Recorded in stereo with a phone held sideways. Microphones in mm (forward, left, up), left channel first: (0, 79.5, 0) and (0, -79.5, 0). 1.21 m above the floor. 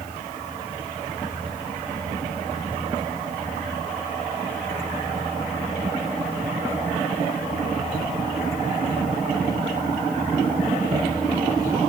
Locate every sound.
Only background noise.